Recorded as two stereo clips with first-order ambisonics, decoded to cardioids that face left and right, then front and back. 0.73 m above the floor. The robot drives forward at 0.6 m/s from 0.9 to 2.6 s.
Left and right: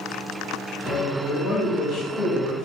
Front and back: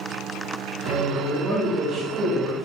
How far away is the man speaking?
About 1.1 m.